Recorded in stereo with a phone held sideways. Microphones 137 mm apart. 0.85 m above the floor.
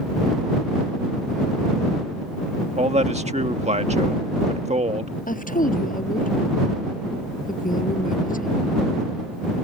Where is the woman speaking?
85° left.